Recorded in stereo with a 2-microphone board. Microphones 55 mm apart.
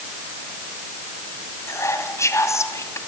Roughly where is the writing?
No writing in this recording.